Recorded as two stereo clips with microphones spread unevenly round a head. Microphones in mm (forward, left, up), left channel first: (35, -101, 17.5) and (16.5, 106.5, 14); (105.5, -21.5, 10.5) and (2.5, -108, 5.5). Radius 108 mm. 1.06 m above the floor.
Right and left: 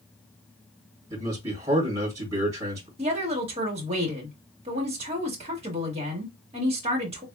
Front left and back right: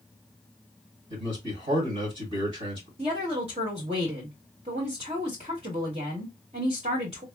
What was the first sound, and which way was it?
A man speaking, 170° left.